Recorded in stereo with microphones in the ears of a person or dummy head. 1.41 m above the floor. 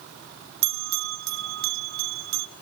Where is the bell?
65° right (ahead or behind), 0.7 m.